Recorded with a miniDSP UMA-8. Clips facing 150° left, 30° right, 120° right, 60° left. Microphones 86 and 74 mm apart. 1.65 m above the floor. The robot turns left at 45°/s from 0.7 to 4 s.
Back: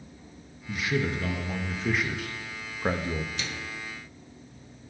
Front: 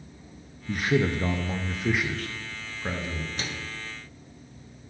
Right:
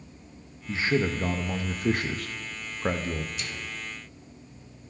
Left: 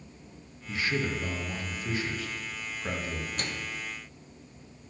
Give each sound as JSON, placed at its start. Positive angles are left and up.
{"t": 0.7, "sound": "a man speaking", "azimuth_deg": -60, "distance_m": 0.6}
{"t": 3.4, "sound": "a microwave", "azimuth_deg": 20, "distance_m": 0.8}